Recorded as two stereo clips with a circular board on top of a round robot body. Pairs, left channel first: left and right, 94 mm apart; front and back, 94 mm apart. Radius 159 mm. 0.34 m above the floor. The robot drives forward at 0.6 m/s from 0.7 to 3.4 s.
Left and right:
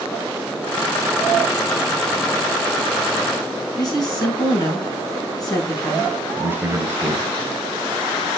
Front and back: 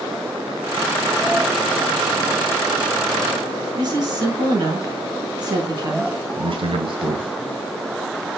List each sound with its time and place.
3.8 s a woman speaking: 135° left, 5 m
6.4 s a man speaking: 160° right, 2 m